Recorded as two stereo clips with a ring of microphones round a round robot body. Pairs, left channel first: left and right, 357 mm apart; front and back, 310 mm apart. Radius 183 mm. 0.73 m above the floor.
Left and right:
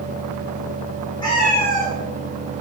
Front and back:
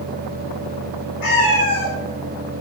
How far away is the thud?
No thud in this recording.